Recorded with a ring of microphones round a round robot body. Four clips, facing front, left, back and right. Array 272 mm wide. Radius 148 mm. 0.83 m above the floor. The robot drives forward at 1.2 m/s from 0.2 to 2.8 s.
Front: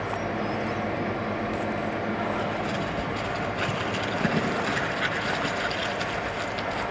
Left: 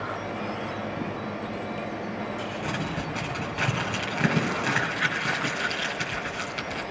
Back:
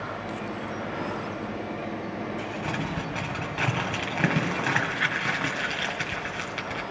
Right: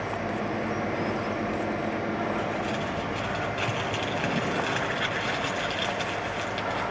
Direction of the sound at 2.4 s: 160° left.